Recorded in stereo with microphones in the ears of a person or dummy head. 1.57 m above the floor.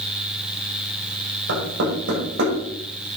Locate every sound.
1.5 s knocking: 75° right (ahead or behind), 6 m